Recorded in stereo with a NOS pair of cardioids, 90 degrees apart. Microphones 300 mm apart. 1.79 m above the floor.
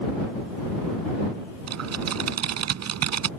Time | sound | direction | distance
1.7 | typing on a keyboard | 60° right | ?